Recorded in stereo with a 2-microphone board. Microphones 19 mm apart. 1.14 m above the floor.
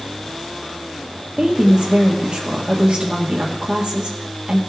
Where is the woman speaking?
70° right (ahead or behind), 1.8 m.